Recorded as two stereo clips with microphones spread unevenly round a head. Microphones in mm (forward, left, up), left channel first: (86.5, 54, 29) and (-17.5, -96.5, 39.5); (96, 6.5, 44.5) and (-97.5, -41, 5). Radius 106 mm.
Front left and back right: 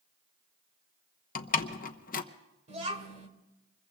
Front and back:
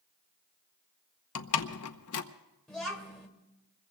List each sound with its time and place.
1.4 s a door slam: 10° left, 0.8 m
2.7 s a child speaking: 70° right, 2.5 m